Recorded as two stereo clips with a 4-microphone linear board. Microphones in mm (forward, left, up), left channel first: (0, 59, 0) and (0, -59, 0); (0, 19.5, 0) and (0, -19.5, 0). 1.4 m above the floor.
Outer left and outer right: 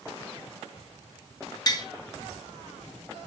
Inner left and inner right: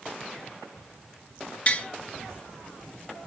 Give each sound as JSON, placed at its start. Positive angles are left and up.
{"t": 1.7, "sound": "tapping", "side_deg": 35, "distance_m": 0.8}